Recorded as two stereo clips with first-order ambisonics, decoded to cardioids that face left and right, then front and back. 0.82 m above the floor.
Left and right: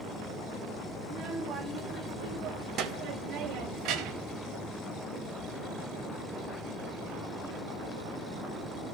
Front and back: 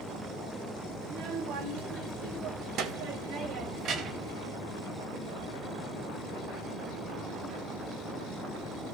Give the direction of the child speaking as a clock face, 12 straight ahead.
5 o'clock.